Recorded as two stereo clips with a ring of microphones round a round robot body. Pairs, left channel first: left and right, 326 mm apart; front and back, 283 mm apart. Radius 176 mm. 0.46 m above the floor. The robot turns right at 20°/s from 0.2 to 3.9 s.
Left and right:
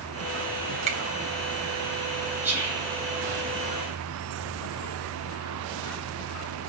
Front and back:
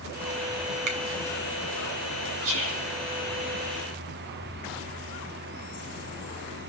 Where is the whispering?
175° right, 8 m; by 2.9 s 165° right, 8 m.